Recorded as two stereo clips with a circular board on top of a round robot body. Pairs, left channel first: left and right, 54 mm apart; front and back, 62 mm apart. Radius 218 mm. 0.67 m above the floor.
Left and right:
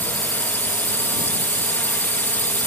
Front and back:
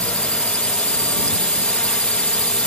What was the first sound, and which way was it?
A drone, 60° left.